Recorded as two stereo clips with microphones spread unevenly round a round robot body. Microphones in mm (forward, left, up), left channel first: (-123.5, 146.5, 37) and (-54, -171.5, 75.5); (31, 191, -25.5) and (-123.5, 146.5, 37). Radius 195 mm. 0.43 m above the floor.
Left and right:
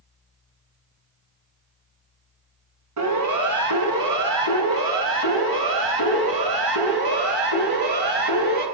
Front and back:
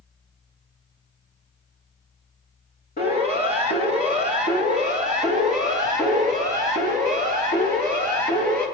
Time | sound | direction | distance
3.0 | a siren | 30° right | 8.5 m